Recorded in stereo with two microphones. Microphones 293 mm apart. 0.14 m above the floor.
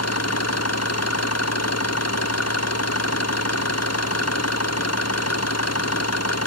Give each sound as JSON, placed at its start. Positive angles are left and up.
{"t": 0.0, "sound": "an engine running", "side_deg": 60}